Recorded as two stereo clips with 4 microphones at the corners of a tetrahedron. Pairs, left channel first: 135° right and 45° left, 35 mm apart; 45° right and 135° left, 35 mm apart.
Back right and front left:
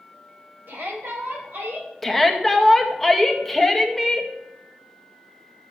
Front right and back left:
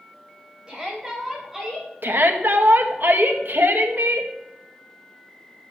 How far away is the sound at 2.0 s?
About 2 m.